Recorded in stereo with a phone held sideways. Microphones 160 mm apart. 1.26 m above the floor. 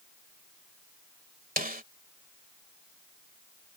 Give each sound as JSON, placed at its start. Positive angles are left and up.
{"t": 1.6, "sound": "a snare drum", "side_deg": -65}